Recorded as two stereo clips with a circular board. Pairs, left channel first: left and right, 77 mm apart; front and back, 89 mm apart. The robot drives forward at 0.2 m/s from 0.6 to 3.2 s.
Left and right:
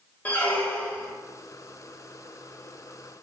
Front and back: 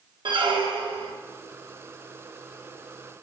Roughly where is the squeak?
Behind left.